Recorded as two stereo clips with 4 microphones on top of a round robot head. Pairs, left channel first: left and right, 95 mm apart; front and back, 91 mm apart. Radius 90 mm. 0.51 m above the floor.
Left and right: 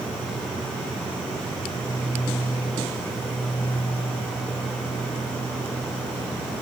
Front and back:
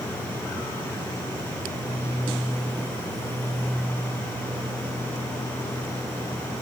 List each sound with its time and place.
Only background noise.